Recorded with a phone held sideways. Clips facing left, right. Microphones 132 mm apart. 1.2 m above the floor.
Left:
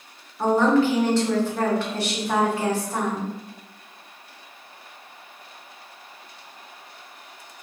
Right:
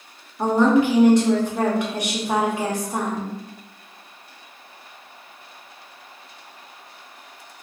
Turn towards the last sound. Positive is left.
turn(degrees=-15)  # may be behind; listen again after turning